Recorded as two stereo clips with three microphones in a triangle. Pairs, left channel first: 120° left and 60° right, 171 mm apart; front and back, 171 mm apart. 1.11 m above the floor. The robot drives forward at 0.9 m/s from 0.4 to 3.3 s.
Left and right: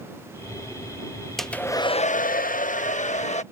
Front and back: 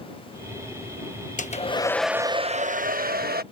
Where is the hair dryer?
30° left; by 3.4 s 160° left.